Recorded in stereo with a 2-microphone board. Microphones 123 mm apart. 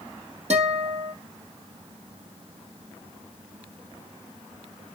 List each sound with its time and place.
0.5 s a guitar: 60° right (ahead or behind), 4.5 m